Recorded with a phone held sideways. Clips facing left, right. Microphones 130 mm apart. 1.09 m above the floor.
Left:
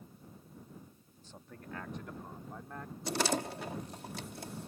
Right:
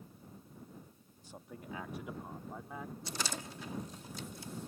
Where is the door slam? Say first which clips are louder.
Left 13 dB; 65° left (ahead or behind).